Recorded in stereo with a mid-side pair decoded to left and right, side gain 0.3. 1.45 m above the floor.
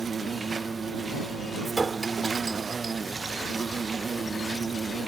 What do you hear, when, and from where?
0.0 s an insect: 45° right
1.6 s a clink: 35° right